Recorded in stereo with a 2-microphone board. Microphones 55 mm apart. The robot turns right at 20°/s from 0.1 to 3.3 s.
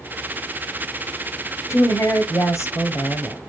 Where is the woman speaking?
80° left, 2.5 m; by 3.4 s 110° left, 2.5 m.